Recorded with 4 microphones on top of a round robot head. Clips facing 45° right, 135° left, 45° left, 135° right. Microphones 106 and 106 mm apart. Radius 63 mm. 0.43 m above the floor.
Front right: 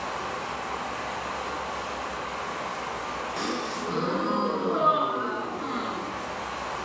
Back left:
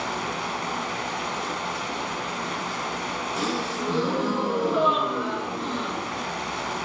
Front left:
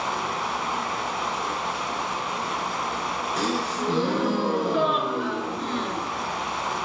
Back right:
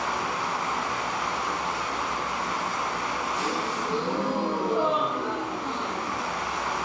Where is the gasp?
60° left, 3 m.